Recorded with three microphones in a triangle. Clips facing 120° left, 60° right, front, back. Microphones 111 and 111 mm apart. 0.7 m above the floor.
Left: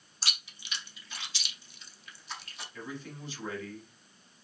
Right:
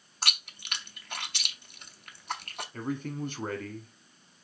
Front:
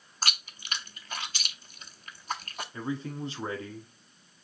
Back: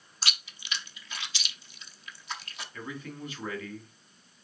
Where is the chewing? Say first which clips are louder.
Right 5 dB, front 3 dB; 35° right, 0.6 m.